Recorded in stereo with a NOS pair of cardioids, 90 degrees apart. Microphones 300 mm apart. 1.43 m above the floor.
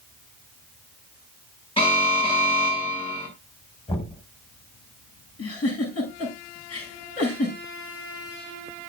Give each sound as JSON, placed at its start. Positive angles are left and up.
{"t": 1.8, "sound": "an alarm", "azimuth_deg": 20, "distance_m": 7.0}
{"t": 3.9, "sound": "knocking", "azimuth_deg": 20, "distance_m": 5.5}
{"t": 5.4, "sound": "a giggle", "azimuth_deg": 55, "distance_m": 8.5}